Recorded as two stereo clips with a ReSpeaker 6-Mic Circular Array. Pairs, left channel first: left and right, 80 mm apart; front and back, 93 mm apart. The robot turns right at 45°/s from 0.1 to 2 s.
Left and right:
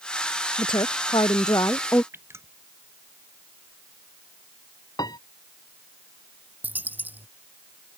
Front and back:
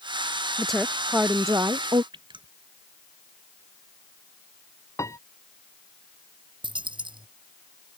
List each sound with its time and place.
0.6 s a woman speaking: 85° left; by 2.0 s 145° left
2.1 s dripping: 145° right
5.0 s a piano: 60° left
6.6 s a dropped coin: 155° right